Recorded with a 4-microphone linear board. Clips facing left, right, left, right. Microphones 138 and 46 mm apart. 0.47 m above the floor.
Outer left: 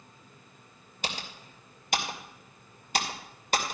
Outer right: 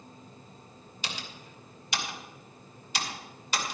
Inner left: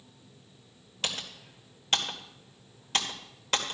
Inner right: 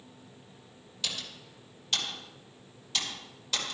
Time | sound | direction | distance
1.0 | typing on a keyboard | 50° left (ahead or behind) | 2 m